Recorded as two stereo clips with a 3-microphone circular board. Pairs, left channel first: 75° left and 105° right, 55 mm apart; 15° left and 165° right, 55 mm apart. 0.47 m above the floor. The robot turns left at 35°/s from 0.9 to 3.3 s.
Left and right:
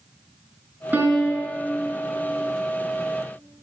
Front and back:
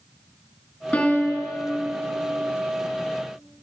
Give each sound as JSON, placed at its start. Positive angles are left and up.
{"t": 0.9, "sound": "a piano", "azimuth_deg": -50, "distance_m": 5.0}